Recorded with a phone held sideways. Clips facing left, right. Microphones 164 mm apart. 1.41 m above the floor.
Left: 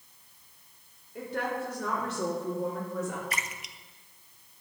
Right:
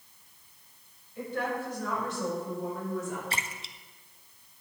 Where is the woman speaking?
70° left (ahead or behind), 4 m; by 3.2 s 65° left (ahead or behind), 3 m.